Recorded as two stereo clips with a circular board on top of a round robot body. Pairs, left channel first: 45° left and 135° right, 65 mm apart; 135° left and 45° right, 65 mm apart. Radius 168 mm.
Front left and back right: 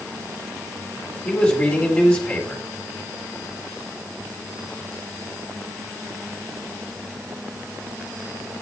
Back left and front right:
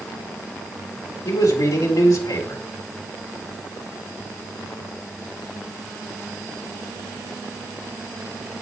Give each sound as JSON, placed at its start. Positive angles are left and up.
{"t": 1.2, "sound": "a man speaking", "azimuth_deg": 120, "distance_m": 3.5}